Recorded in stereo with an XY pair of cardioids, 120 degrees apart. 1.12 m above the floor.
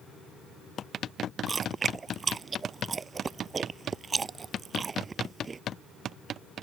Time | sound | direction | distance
1.5 | chewing | 25° right | ?